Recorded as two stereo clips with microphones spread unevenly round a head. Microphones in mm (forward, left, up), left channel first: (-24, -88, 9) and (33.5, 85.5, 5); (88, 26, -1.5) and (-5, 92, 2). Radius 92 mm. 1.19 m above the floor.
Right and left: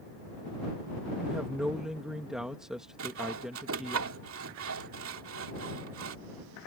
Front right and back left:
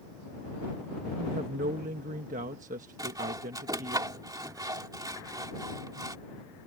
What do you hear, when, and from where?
1.2 s a woman speaking: 160° left
3.0 s sawing: 90° left